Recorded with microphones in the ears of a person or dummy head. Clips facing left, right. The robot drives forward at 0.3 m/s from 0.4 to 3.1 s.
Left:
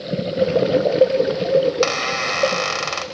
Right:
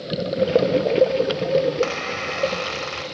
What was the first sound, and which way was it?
A squeak, 60° left (ahead or behind).